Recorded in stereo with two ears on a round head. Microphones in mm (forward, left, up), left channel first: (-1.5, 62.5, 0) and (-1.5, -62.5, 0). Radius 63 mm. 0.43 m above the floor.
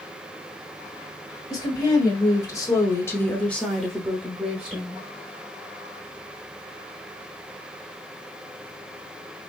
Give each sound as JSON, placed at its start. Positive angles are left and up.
{"t": 1.5, "sound": "a woman speaking", "side_deg": 25, "distance_m": 1.5}